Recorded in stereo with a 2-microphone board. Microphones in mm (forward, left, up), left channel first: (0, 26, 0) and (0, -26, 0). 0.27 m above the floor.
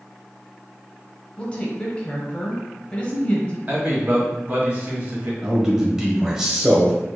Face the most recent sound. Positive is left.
turn(degrees=-10)  # may be behind; listen again after turning